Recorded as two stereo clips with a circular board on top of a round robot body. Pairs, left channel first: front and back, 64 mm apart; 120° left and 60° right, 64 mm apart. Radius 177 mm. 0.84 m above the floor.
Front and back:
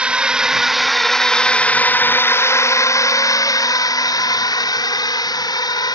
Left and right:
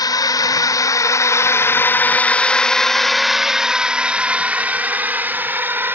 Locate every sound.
0.0 s a drone: 110° left; by 6.0 s straight ahead